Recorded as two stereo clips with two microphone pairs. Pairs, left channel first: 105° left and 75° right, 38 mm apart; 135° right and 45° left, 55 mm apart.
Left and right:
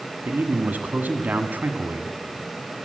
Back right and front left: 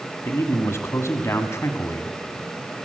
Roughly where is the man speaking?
Right.